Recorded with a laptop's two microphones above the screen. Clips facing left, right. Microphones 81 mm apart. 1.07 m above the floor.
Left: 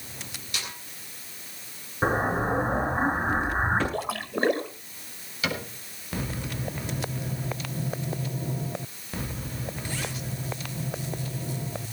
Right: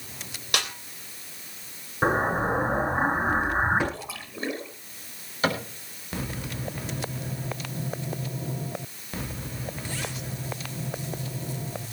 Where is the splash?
60° left (ahead or behind), 1.5 m.